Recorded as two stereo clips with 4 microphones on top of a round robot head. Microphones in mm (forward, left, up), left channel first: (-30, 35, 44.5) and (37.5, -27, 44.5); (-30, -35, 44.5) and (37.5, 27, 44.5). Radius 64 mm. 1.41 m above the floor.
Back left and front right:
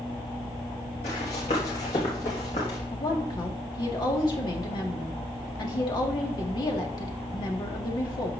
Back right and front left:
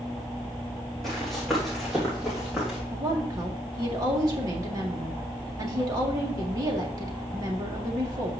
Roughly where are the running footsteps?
Behind left.